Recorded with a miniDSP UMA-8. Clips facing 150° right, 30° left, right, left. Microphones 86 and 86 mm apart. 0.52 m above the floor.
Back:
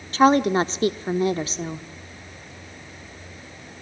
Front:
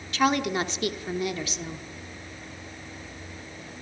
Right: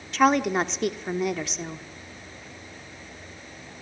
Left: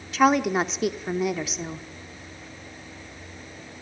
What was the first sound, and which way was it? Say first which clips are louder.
A woman speaking: back 7 dB, left 1 dB; 175° left.